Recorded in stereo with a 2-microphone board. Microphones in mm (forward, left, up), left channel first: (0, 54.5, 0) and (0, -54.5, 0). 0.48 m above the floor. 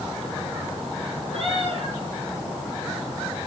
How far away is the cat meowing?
About 5 m.